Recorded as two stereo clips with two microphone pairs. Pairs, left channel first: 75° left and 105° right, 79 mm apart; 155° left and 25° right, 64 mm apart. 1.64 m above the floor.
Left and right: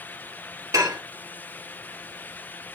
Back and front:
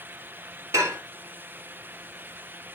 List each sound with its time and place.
0.7 s dishes clattering: 60° right, 2 m